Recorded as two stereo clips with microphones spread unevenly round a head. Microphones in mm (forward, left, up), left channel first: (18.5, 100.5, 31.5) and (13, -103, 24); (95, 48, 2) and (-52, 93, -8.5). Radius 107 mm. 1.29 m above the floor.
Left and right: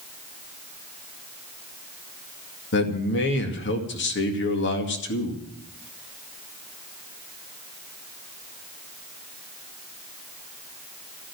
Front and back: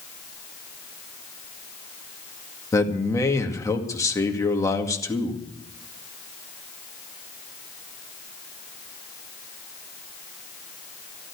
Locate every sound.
2.7 s a man speaking: 55° left, 2 m